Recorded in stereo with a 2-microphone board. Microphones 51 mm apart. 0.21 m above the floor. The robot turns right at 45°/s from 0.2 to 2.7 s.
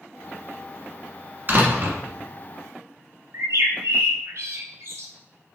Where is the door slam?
45° right (ahead or behind), 1.2 m; by 2.0 s 55° right (ahead or behind), 1.2 m.